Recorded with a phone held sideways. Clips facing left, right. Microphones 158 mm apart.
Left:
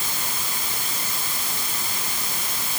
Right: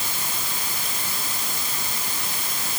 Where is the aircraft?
No aircraft in this recording.